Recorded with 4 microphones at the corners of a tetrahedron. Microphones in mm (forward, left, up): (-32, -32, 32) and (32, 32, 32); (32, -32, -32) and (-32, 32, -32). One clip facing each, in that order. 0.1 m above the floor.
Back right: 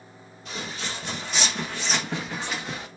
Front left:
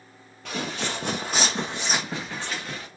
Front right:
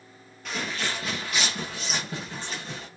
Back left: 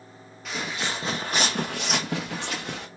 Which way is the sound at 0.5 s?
50° left.